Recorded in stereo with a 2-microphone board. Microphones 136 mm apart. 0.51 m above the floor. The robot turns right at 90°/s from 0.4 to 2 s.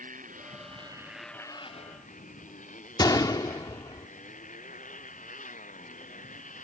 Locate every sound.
0.0 s a motorcycle: 75° right; by 6.7 s 70° left
3.0 s a gunshot: 30° left (ahead or behind)